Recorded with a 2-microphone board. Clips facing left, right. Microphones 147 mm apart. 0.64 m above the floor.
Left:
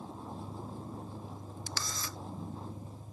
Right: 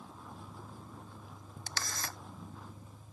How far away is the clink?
No clink in this recording.